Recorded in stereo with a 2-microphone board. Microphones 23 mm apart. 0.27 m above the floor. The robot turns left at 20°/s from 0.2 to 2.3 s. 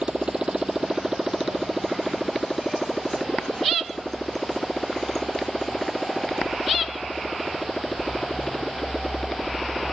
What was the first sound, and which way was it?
A motorcycle, 55° right (ahead or behind).